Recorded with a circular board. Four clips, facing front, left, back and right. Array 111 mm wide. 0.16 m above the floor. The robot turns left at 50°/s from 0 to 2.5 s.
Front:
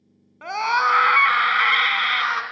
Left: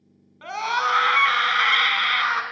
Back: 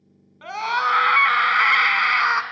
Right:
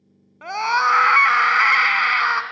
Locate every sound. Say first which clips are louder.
0.4 s a scream: right 4 dB, front 2 dB; 45° right, 1.4 m; by 2.4 s 145° right, 1.4 m